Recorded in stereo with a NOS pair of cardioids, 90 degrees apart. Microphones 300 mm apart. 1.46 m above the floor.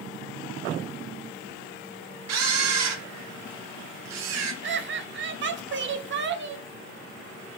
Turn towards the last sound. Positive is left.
turn(degrees=-40)